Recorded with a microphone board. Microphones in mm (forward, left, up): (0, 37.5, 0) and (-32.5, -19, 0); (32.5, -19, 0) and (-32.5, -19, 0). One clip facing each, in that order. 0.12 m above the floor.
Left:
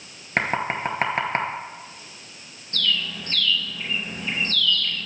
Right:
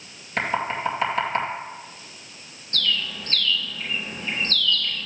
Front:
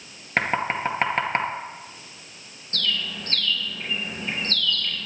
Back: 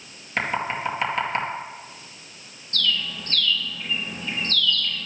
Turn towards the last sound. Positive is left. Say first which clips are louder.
# left 1 dB, back 2 dB
turn(degrees=-20)